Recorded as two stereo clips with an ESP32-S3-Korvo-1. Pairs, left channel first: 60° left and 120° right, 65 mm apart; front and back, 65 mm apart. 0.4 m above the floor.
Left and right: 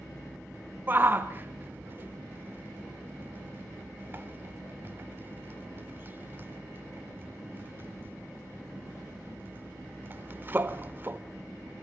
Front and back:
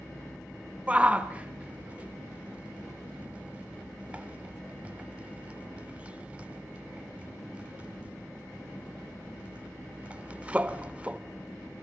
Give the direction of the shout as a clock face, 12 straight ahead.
4 o'clock.